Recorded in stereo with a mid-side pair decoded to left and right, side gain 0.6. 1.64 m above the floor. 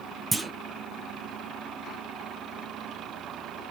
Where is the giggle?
No giggle in this recording.